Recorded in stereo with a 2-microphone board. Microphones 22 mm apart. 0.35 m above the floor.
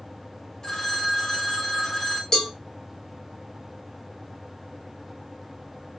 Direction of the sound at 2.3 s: 25° left (ahead or behind).